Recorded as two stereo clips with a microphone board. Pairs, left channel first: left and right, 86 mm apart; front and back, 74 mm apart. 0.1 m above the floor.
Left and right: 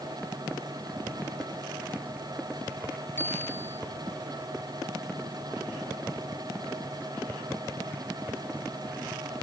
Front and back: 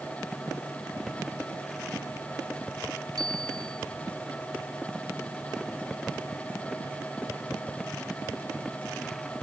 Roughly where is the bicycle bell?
Behind left.